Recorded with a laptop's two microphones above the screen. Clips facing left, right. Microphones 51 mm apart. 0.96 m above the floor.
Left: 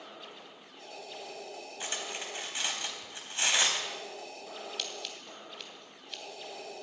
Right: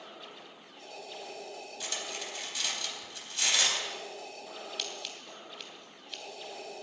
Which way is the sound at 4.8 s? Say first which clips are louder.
Even; centre (ahead or behind).